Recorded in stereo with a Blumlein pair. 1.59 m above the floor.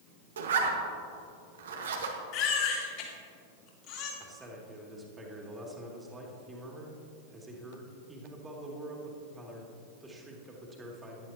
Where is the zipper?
60° right, 1.6 m.